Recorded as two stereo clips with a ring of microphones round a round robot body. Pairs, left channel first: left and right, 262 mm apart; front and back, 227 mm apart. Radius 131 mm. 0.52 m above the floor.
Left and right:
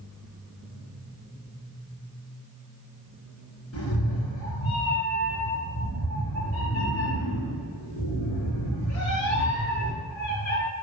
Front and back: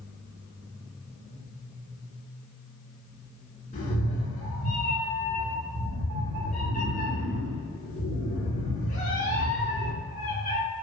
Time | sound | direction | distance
3.7 | a cat meowing | 55° left | 3 m